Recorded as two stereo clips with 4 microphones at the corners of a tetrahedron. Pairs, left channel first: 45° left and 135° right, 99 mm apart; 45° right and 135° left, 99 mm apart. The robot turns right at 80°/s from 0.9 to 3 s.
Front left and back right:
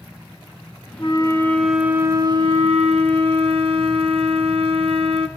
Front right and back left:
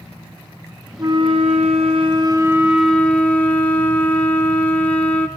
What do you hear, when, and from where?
1.0 s a flute: 80° left, 2.5 m; by 5.3 s 120° right, 2.5 m